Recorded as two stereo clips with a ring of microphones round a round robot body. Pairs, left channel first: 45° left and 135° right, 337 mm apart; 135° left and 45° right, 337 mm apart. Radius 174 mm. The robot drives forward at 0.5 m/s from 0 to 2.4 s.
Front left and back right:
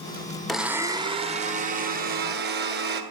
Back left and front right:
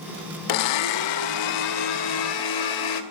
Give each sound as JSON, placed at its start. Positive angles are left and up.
{"t": 0.5, "sound": "a blender", "azimuth_deg": 135, "distance_m": 0.6}